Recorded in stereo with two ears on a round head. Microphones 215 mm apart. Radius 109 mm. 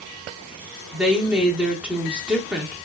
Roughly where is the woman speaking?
Centre.